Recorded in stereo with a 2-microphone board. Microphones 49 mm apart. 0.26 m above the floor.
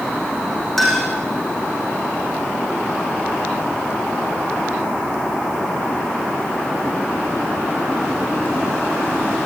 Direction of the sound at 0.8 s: 5° left (ahead or behind).